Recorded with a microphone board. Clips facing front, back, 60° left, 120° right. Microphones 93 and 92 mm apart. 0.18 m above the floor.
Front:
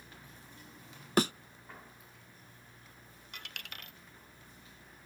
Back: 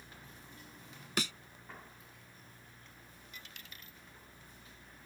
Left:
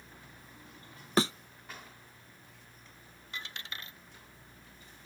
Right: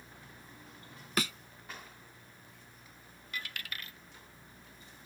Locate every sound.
1.2 s a thud: 15° left
3.3 s a dropped coin: 5° right